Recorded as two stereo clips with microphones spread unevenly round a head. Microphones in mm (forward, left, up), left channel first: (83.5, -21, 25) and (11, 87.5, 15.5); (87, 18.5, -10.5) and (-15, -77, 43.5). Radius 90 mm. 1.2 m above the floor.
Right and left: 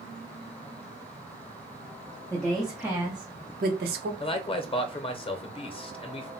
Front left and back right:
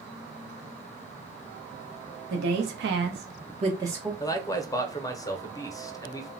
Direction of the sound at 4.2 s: 10° right.